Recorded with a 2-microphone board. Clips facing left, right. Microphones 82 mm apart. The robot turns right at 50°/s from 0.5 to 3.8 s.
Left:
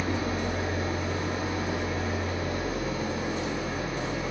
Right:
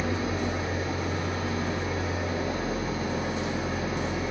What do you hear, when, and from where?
0.0 s an engine running: 110° left, 2.5 m; by 4.3 s 85° right, 2.5 m